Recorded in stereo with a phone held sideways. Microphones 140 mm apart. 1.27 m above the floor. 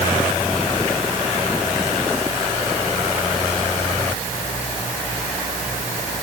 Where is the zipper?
No zipper in this recording.